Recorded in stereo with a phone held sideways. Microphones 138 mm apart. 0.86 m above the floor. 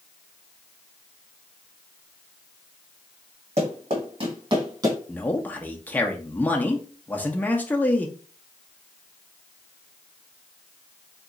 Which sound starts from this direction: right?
Running footsteps, at 3.6 s.